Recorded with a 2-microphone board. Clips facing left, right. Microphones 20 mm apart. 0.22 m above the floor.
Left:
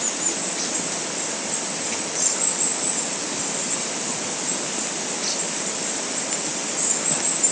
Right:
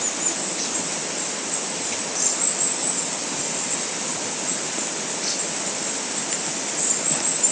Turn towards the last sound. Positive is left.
No sound to turn to.